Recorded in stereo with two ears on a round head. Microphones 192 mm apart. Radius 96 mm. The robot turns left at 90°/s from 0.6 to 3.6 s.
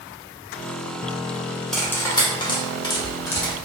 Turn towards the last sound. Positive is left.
turn(degrees=0)  # may be behind; listen again after turning